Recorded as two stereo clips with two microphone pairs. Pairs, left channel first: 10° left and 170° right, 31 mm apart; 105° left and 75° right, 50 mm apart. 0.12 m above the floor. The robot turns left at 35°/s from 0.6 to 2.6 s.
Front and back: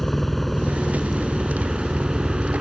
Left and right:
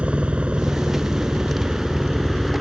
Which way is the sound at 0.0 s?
70° right.